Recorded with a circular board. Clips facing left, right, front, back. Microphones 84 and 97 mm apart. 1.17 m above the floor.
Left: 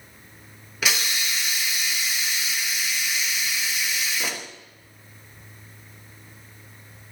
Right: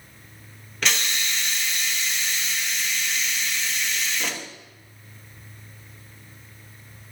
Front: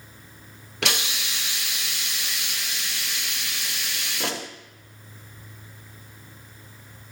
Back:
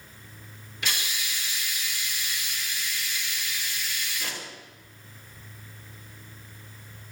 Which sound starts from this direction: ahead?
A hiss, at 0.8 s.